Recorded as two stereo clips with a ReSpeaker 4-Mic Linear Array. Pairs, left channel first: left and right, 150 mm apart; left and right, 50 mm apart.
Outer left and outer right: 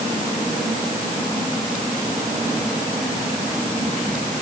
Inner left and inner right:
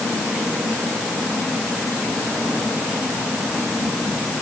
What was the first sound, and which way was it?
Only background noise.